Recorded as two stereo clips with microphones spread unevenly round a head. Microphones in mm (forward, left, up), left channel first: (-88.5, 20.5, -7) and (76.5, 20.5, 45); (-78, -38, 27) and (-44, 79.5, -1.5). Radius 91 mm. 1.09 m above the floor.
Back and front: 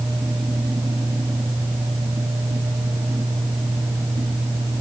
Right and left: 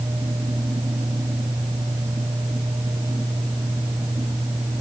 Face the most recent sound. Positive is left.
No sound to turn to.